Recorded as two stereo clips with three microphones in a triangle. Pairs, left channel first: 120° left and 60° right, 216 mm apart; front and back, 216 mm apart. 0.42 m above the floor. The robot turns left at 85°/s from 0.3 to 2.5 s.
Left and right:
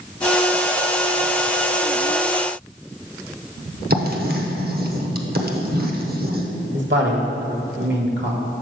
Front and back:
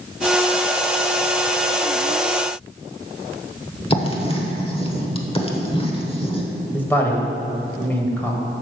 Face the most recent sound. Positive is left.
turn(degrees=-80)